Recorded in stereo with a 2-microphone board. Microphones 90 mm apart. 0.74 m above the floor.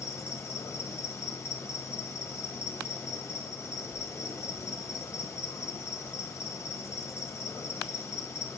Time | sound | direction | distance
0.0 | an insect | 30° left (ahead or behind) | 2.5 m